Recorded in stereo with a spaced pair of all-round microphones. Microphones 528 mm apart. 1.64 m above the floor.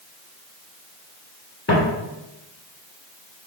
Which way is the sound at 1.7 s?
30° left (ahead or behind).